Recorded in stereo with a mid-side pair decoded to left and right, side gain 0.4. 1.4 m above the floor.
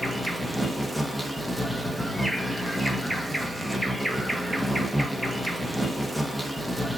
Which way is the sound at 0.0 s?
5° right.